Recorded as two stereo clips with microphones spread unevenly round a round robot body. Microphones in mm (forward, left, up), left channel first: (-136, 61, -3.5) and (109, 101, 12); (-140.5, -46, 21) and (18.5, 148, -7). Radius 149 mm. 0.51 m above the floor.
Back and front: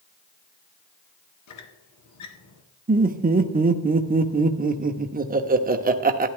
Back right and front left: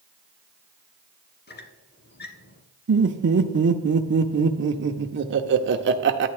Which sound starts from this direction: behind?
A squeak, at 1.5 s.